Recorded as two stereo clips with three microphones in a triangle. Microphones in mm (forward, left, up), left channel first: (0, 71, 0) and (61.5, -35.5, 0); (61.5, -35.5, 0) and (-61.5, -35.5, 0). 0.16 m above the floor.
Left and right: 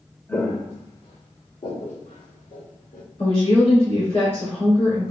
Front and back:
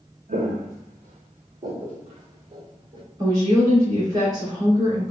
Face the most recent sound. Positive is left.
turn(degrees=130)